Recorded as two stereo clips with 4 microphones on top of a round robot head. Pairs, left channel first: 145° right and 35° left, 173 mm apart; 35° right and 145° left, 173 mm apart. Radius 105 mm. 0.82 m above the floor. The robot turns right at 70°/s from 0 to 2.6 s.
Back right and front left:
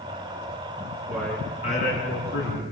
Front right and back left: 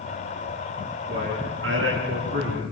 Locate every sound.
1.1 s a man speaking: 115° left, 10 m; by 2.6 s 140° right, 10 m